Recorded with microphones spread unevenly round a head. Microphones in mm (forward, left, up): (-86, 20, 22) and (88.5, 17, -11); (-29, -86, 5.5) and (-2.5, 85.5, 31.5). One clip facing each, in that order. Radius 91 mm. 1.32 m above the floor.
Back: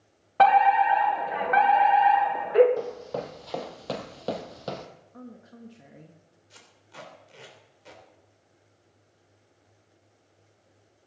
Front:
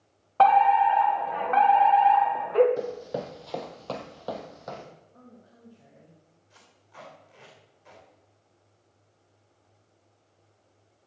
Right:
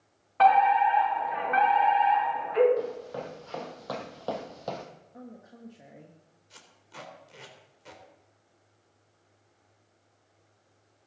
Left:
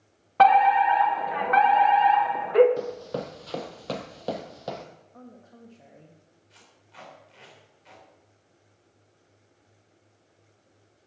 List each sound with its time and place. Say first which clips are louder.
0.4 s a fire alarm: even, left 3 dB; 105° left, 1.8 m
2.8 s running footsteps: even, left 1 dB; 70° left, 2.5 m; by 4.9 s 160° left, 2.5 m
5.1 s a woman speaking: back 7 dB, right 3 dB; straight behind, 1.7 m
6.5 s tape being pulled: back 3 dB, right 4 dB; 130° right, 3.5 m